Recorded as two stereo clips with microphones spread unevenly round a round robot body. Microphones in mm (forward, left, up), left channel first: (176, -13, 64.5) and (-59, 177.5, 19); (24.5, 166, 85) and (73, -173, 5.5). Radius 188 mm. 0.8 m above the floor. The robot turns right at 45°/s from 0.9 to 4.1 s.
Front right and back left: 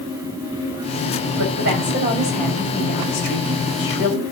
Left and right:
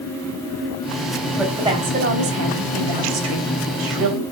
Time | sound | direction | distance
1.3 | a woman speaking | 175° right | 3.5 m